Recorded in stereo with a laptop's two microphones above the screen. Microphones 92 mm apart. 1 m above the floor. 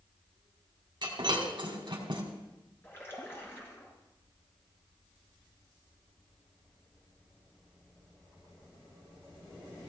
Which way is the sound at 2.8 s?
25° left (ahead or behind).